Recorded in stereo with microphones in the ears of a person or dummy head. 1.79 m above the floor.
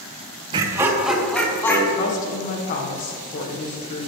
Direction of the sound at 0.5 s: 25° right (ahead or behind).